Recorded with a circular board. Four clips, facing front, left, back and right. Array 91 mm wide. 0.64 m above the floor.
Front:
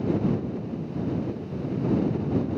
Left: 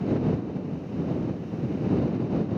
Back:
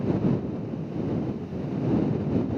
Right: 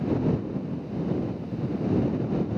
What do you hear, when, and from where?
Only background noise.